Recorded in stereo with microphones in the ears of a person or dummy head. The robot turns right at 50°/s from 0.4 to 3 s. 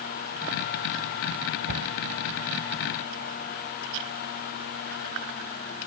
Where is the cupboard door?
60° right (ahead or behind); by 1.9 s 70° right (ahead or behind).